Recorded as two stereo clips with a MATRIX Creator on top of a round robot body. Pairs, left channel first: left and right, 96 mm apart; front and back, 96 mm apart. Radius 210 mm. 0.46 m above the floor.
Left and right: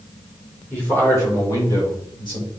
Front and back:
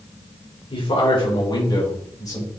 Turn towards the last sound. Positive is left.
turn(degrees=60)